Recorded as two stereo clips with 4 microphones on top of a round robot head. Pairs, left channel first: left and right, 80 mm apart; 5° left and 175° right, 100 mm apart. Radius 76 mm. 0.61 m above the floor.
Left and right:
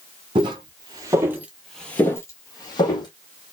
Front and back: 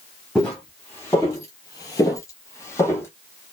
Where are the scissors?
I don't hear scissors.